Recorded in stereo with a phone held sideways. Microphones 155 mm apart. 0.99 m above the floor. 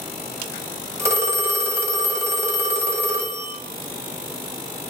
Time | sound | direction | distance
1.0 | a phone ringing | 20° right (ahead or behind) | 0.8 m